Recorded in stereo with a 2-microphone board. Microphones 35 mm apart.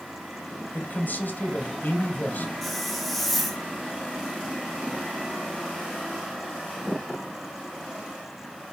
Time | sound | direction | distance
0.7 | a man speaking | 60° left (ahead or behind) | 2 m
2.6 | a hiss | centre (ahead or behind) | 1.7 m